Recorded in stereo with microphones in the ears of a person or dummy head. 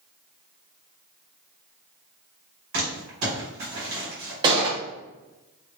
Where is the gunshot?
25° right (ahead or behind), 0.8 m.